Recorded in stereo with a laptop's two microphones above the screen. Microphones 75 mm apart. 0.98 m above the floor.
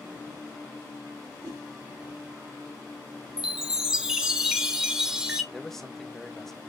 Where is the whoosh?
70° right (ahead or behind), 3 m.